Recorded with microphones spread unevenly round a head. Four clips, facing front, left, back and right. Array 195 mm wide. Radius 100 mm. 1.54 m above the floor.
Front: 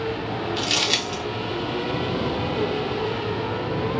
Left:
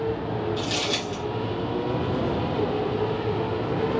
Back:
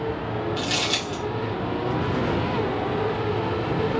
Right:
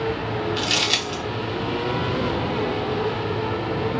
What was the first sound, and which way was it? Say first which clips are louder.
Crumpling: right 2 dB, front 1 dB; 60° right.